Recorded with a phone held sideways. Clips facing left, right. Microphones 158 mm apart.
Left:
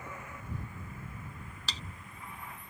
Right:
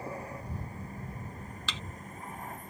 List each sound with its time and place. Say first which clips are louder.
0.0 s a vehicle: right 6 dB; 35° right (ahead or behind); by 2.7 s 45° right (ahead or behind)
1.7 s a thud: right 3 dB; 40° left (ahead or behind)